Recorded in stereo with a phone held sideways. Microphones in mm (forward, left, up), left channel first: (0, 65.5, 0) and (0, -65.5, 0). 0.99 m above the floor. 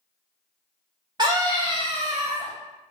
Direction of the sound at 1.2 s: 35° right (ahead or behind).